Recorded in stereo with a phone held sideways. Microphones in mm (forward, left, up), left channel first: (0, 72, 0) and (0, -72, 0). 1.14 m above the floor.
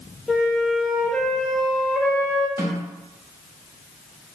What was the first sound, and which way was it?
A flute, 5° left (ahead or behind).